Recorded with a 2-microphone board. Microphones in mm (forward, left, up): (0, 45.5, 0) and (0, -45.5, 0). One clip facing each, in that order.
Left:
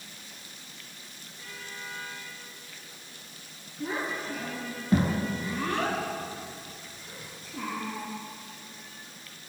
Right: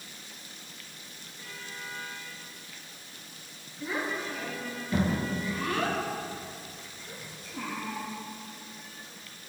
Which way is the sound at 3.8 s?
35° left (ahead or behind).